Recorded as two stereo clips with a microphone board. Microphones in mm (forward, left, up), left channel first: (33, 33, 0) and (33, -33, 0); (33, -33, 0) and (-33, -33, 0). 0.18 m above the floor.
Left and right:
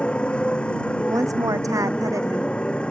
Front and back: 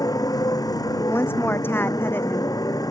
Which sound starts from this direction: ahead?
A motorcycle, at 0.0 s.